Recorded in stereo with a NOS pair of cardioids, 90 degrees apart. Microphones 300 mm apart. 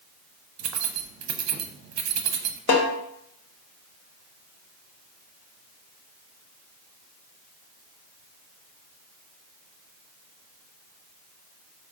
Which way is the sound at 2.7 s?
65° left.